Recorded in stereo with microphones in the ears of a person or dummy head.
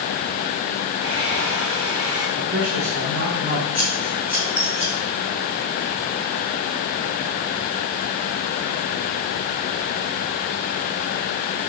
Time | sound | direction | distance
1.0 | a hair dryer | 30° right (ahead or behind) | 1.9 m
2.4 | a man speaking | 55° right (ahead or behind) | 1.4 m
3.7 | scissors | 15° left (ahead or behind) | 3 m